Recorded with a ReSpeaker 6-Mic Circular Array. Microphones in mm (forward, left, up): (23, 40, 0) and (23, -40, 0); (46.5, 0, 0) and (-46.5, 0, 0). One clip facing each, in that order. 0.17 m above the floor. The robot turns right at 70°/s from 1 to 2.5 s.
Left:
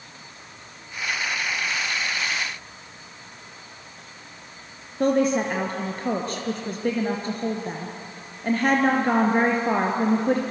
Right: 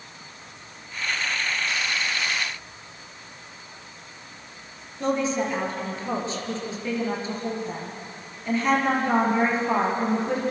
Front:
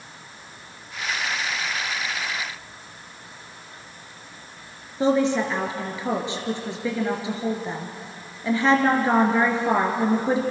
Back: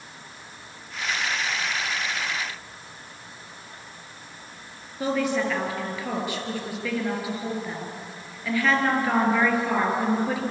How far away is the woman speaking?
About 4 m.